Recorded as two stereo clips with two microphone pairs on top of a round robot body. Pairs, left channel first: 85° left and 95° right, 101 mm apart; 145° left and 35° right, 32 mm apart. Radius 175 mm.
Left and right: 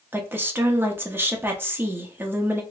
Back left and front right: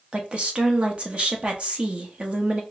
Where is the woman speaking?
40° right, 1.1 m.